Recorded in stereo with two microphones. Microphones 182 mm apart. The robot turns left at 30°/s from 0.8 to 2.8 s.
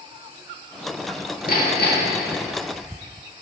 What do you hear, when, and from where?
1.5 s hammering: 55° left (ahead or behind), 2.0 m; by 2.2 s 70° left (ahead or behind), 2.0 m